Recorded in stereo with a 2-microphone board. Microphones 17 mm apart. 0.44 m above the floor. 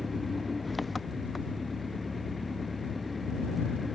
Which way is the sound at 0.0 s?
Centre (ahead or behind).